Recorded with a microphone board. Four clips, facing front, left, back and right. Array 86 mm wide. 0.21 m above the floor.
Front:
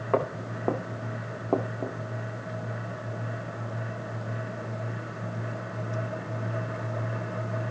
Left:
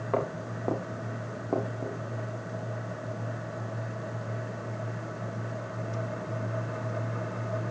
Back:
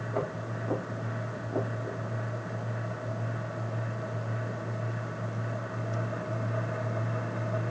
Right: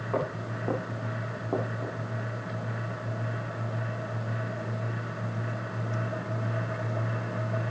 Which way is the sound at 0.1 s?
15° left.